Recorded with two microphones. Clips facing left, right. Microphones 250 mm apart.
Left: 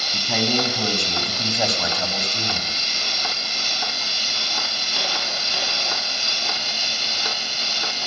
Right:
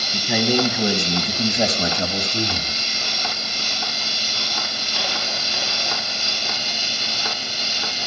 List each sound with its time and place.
0.1 s a man speaking: 10° right (ahead or behind), 1.8 m; by 2.8 s 35° right (ahead or behind), 1.3 m